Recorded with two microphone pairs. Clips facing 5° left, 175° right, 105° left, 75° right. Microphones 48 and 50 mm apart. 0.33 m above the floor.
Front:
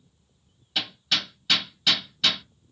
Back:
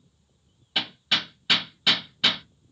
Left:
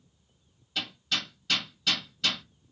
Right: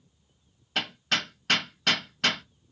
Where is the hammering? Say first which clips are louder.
Back 1 dB, right 4 dB; 105° right, 0.6 m.